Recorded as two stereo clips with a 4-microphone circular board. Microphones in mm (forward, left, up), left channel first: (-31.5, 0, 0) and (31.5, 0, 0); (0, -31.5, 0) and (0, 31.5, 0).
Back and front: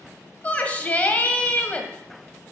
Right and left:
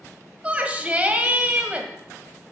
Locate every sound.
0.4 s a shout: 135° left, 1.3 m